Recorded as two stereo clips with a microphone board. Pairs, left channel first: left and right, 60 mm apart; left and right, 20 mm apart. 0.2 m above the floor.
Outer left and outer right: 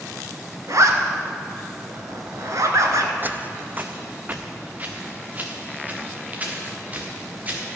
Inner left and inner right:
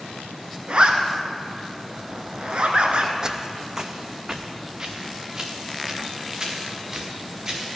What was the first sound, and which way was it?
A zipper, 60° right (ahead or behind).